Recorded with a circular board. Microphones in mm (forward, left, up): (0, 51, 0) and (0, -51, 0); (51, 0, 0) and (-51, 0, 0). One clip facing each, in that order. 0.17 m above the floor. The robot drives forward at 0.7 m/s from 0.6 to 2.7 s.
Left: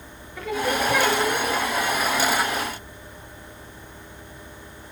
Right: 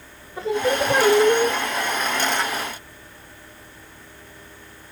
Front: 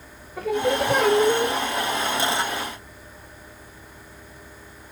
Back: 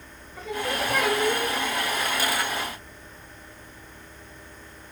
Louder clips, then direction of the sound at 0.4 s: Right 3 dB, front 7 dB; 30° right.